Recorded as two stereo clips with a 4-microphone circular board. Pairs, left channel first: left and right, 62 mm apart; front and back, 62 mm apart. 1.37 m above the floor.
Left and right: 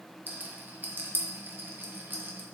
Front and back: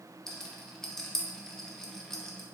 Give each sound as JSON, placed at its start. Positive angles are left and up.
{"t": 0.3, "sound": "a rattle", "azimuth_deg": -75, "distance_m": 0.6}